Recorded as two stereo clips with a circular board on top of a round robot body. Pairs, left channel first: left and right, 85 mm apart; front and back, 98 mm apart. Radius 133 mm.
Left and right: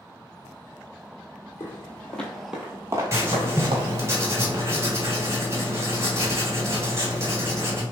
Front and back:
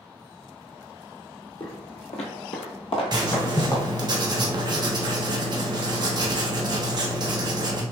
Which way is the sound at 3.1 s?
145° right.